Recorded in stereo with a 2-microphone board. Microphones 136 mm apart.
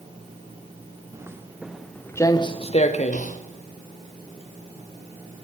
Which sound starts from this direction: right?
Footsteps, at 1.1 s.